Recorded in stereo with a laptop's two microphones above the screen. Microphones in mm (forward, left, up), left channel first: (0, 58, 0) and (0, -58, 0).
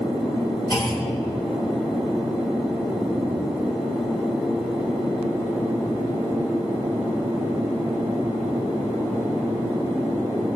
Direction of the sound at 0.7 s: 40° left (ahead or behind).